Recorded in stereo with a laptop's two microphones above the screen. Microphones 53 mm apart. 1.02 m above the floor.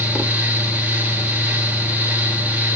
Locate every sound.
0.0 s a fan: 35° right (ahead or behind), 3.5 m